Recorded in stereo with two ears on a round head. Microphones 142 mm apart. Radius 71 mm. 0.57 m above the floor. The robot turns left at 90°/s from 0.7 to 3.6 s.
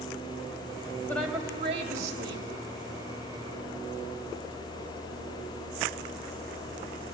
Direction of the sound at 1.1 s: 15° left.